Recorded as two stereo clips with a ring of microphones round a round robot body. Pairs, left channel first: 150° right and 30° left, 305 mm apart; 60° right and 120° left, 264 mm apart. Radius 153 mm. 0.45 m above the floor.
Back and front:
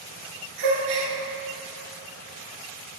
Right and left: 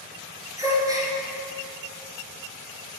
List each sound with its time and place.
0.6 s a gasp: 40° left, 1.8 m